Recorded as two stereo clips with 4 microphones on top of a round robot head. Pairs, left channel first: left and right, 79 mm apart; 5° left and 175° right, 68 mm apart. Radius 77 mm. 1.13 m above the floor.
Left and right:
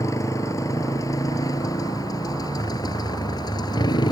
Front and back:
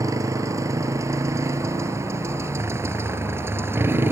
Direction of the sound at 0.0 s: 145° left.